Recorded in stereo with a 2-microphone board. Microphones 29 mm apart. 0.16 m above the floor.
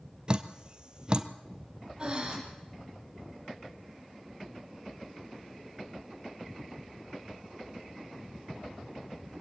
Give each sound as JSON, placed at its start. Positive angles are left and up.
{"t": 0.3, "sound": "dripping", "side_deg": -30, "distance_m": 1.0}
{"t": 2.0, "sound": "breathing", "side_deg": -25, "distance_m": 5.0}